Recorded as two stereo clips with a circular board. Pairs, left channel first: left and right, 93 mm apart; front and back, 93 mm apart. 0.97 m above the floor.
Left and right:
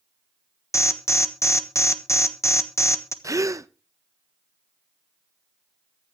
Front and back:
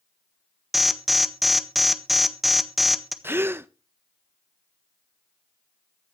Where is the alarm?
95° left, 1.3 m.